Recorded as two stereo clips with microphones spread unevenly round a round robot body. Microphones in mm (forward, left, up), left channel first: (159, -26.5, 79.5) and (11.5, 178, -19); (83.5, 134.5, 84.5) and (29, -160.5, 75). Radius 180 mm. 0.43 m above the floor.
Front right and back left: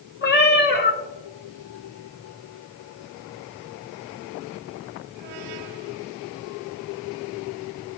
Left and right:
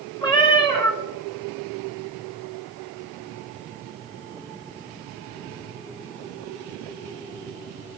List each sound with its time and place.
0.2 s a cat meowing: 5° left, 1.5 m